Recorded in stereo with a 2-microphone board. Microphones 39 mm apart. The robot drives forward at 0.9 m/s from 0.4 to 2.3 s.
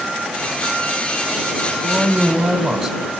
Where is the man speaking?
5° right (ahead or behind), 1.8 m.